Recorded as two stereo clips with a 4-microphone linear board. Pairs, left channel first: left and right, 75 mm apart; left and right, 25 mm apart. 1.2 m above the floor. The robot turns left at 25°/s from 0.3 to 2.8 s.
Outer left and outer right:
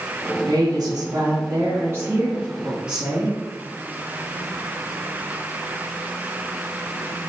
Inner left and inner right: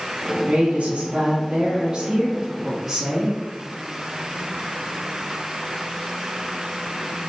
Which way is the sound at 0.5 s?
110° right.